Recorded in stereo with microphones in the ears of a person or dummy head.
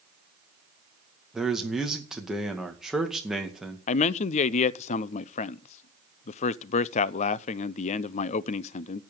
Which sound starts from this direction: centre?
A man speaking, at 1.3 s.